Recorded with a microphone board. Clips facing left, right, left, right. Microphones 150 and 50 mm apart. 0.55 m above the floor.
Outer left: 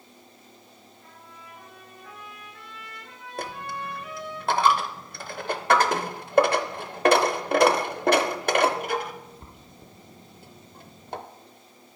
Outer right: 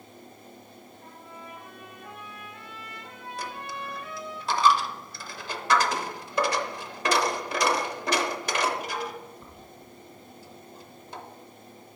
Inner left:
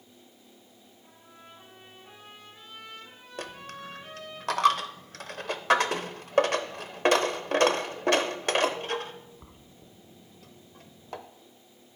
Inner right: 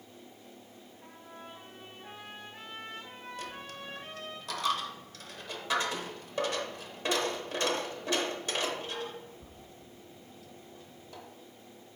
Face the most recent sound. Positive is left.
turn(degrees=55)  # may be behind; listen again after turning